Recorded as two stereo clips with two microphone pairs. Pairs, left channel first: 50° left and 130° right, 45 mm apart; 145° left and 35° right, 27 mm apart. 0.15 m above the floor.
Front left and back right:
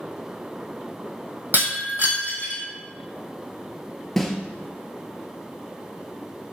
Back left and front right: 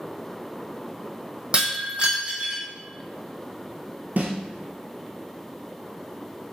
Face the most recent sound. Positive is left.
turn(degrees=-35)